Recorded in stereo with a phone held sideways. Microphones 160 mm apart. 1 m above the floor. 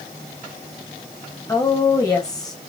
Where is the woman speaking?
20° left (ahead or behind), 1.5 m.